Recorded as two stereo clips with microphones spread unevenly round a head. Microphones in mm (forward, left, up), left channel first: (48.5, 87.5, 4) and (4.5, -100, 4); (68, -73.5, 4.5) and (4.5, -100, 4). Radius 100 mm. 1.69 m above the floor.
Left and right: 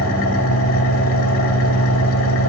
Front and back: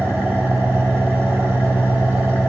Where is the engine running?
105° left, 3.5 m.